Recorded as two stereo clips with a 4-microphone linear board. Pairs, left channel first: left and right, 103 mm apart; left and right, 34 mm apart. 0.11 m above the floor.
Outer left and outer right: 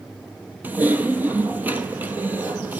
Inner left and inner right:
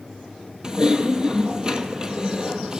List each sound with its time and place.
0.6 s typing on a keyboard: 20° right (ahead or behind), 0.7 m